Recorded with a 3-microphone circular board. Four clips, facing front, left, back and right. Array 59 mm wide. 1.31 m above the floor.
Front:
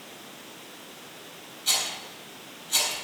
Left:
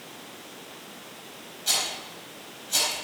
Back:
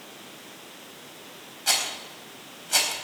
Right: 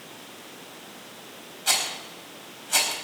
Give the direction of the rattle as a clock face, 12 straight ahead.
5 o'clock.